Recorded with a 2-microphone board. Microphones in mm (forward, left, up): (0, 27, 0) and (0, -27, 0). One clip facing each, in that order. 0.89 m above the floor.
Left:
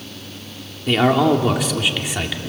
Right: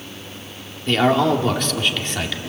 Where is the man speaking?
5° left (ahead or behind), 2.5 m.